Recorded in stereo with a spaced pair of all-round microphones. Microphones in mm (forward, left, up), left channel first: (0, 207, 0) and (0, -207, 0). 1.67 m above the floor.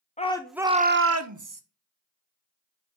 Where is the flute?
No flute in this recording.